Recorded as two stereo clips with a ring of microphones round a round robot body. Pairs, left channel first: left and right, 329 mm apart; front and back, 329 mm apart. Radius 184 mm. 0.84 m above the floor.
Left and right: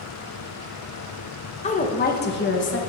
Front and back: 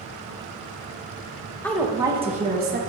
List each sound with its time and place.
1.6 s a woman speaking: 75° left, 0.7 m; by 2.8 s 135° left, 1.0 m